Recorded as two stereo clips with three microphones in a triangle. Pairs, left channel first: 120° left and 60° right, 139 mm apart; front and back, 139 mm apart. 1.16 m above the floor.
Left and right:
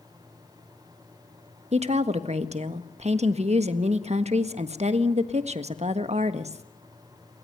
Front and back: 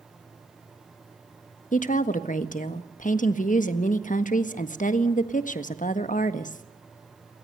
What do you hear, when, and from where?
1.7 s a woman speaking: 20° right, 1.4 m